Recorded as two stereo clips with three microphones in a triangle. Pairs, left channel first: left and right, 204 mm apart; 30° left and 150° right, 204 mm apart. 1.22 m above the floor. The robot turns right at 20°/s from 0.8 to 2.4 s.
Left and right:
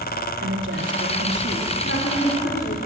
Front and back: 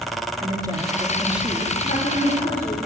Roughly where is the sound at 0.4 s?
Right.